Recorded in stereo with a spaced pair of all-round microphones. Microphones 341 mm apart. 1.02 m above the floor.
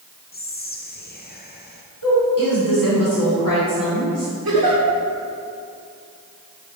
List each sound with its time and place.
0.3 s whispering: 30° left (ahead or behind), 0.6 m
2.0 s a woman speaking: 70° left (ahead or behind), 3 m
4.5 s a giggle: 85° right, 2.5 m